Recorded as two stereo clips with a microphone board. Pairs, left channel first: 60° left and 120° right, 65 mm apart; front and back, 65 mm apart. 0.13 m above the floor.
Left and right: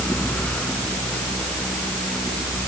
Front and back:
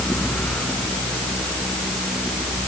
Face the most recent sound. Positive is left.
No sound to turn to.